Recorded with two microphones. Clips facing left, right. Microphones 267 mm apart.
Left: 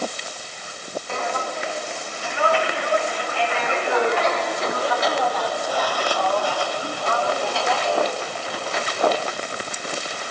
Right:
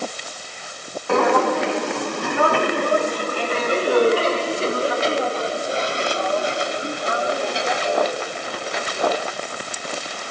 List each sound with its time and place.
1.1 s footsteps: 70° right (ahead or behind); by 9.2 s 15° right (ahead or behind)